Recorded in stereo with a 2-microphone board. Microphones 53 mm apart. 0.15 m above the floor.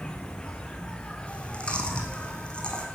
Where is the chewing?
20° left (ahead or behind), 2.5 m.